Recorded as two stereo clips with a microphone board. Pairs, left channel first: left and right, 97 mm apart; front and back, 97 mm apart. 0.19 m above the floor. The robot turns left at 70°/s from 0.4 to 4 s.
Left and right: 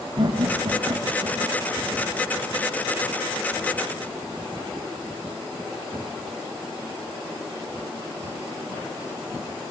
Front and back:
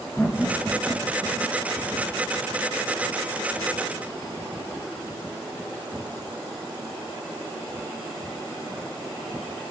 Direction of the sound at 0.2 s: 75° right.